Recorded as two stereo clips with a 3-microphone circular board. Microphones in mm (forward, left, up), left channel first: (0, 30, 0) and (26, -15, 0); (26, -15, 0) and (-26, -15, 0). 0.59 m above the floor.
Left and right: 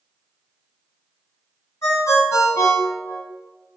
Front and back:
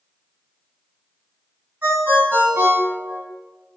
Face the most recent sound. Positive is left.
turn(degrees=135)